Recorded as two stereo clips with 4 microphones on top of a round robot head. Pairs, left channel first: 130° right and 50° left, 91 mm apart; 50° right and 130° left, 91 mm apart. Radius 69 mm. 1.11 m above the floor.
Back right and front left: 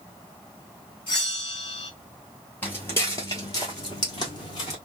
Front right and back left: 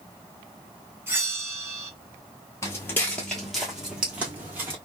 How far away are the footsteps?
About 1.1 m.